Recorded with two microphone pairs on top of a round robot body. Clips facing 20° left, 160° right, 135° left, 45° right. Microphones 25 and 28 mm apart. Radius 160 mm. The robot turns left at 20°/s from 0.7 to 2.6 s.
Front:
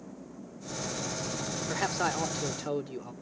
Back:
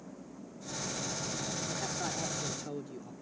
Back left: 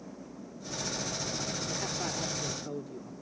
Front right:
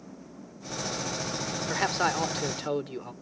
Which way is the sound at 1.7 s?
15° right.